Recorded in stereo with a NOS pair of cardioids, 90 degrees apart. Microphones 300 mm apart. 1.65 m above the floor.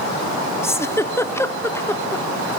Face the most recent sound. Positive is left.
turn(degrees=10)